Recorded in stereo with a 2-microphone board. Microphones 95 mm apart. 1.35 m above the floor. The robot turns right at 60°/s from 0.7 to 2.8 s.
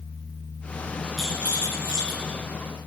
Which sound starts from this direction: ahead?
A rattle, at 1.2 s.